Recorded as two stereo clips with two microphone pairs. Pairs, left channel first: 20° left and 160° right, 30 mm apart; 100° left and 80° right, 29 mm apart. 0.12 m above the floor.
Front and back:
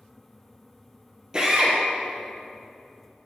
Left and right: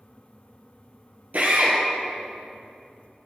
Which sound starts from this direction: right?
A drill, at 1.3 s.